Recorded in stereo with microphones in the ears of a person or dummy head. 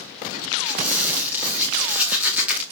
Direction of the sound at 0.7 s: 5° right (ahead or behind).